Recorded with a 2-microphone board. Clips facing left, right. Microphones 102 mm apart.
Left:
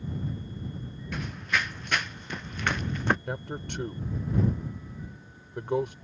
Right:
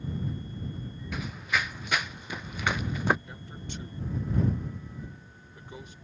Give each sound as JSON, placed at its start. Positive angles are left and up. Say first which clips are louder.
{"t": 1.1, "sound": "running footsteps", "louder": "even", "side_deg": -5}
{"t": 3.3, "sound": "a man speaking", "louder": "left 8 dB", "side_deg": 65}